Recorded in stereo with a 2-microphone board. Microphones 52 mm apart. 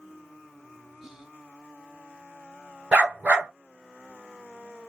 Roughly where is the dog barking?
Right.